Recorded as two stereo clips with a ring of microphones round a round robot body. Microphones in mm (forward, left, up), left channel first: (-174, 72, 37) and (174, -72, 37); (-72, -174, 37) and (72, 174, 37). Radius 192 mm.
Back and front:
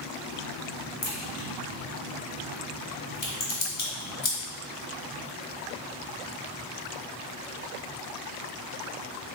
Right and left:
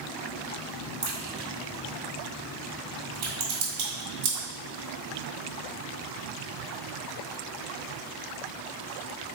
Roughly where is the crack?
Behind left.